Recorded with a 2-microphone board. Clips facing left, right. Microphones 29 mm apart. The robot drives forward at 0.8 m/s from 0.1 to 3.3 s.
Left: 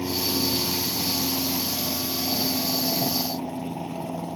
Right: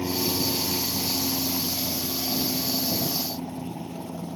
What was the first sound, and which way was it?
An aircraft, centre (ahead or behind).